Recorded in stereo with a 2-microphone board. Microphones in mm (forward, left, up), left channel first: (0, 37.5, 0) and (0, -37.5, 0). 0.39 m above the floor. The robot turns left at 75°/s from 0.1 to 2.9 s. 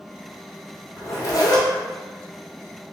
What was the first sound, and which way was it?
A zipper, 150° left.